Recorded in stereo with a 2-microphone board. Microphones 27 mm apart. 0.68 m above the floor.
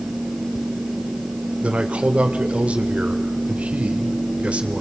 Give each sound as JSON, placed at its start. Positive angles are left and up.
{"t": 1.6, "sound": "a man speaking", "side_deg": -55, "distance_m": 2.0}